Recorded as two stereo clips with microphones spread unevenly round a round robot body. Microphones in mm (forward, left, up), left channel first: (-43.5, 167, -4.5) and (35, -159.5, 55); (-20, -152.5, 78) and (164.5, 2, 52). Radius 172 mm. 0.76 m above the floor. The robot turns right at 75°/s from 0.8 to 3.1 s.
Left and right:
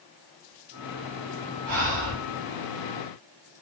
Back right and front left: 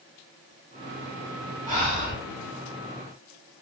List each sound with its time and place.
1.7 s breathing: 65° right, 1.5 m; by 2.2 s 25° right, 1.5 m